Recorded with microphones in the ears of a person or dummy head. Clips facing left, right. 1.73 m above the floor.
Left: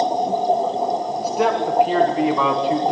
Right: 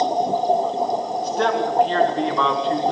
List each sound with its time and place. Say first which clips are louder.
1.2 s a man speaking: left 2 dB; 5° left (ahead or behind), 1.7 m